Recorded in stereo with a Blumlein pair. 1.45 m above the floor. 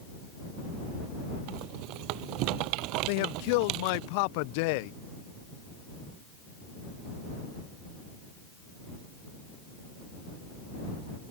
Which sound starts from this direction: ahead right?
A rattle, at 1.5 s.